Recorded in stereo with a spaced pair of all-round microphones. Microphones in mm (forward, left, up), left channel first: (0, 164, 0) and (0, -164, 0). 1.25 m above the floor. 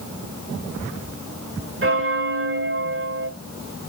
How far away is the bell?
About 1.2 m.